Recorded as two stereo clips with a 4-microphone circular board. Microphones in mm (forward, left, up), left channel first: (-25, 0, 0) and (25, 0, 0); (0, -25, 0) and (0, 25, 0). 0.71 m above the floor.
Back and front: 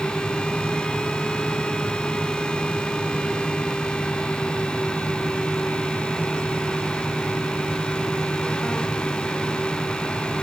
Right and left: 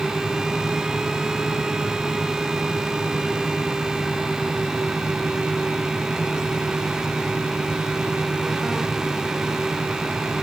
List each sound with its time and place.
Only background noise.